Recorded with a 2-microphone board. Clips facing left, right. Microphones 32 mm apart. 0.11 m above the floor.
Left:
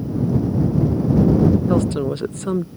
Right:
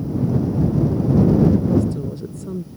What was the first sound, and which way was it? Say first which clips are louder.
A woman speaking: left 1 dB; 70° left (ahead or behind).